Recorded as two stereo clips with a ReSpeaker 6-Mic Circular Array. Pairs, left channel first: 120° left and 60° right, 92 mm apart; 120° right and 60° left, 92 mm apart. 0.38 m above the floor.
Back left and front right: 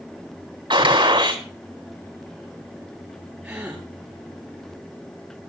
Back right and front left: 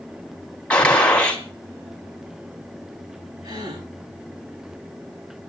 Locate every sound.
0.7 s a gunshot: 45° right, 3 m
3.4 s a gasp: 20° left, 8 m